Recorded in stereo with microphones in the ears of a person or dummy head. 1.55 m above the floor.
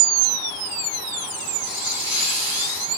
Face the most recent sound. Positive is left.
turn(degrees=25)  # may be behind; listen again after turning